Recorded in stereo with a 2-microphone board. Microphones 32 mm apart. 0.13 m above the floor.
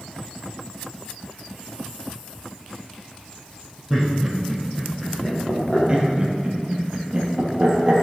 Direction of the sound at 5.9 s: 30° right (ahead or behind).